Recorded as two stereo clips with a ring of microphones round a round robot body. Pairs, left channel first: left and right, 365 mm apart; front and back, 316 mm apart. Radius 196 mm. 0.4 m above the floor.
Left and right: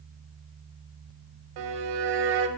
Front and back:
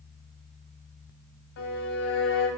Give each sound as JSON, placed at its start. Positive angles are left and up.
{"t": 1.6, "sound": "a violin", "azimuth_deg": -60, "distance_m": 0.6}